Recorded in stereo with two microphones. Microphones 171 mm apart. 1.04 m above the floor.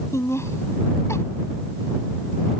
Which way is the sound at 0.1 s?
15° left (ahead or behind).